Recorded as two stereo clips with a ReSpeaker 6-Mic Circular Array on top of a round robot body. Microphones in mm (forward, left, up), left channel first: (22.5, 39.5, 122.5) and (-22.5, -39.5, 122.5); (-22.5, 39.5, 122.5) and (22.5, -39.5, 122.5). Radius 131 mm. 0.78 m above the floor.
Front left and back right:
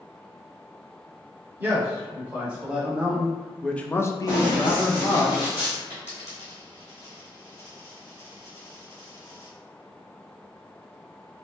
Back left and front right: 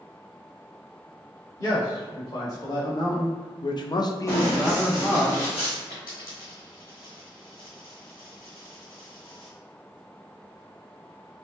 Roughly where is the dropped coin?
Behind.